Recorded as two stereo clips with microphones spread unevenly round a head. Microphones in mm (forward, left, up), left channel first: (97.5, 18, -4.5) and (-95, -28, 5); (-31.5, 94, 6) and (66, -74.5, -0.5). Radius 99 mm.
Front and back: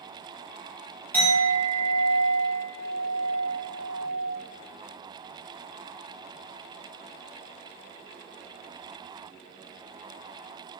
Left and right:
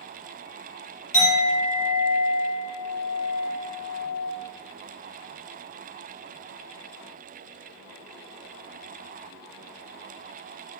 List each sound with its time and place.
1.1 s a clink: 95° left, 0.8 m